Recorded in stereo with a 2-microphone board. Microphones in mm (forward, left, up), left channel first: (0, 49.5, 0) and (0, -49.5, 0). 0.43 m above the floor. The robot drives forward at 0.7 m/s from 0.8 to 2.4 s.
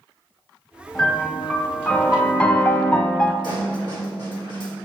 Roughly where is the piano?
Centre.